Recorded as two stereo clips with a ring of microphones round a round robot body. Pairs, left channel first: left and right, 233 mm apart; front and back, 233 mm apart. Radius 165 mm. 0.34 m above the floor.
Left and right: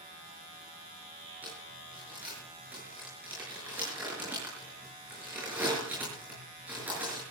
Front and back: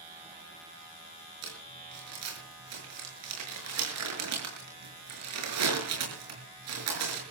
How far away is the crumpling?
About 6 m.